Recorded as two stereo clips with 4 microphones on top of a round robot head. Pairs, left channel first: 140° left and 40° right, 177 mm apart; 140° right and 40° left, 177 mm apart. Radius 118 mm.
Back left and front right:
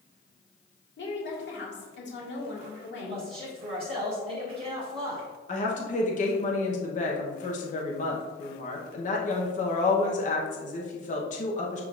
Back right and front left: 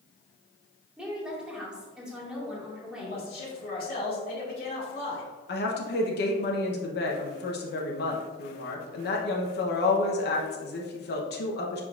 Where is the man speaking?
100° right, 2 m.